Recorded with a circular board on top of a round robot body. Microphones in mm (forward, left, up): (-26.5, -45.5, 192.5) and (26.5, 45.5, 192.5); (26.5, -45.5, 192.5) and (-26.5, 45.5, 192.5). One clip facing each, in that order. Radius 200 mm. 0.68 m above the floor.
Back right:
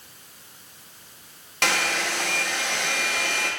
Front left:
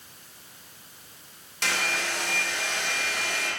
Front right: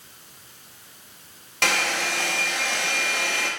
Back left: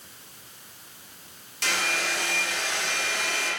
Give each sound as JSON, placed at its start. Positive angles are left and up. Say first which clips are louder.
{"t": 1.6, "sound": "a hair dryer", "louder": "back right 4 dB, front right 4 dB", "azimuth_deg": -90, "distance_m": 0.6}